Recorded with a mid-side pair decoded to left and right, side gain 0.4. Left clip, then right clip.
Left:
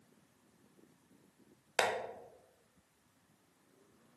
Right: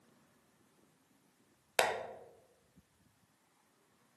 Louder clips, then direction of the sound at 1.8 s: Right 1 dB; 20° right.